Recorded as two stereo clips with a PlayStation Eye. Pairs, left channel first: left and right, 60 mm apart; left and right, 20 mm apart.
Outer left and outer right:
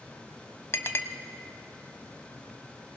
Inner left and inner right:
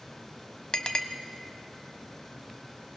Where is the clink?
45° left (ahead or behind), 0.8 m.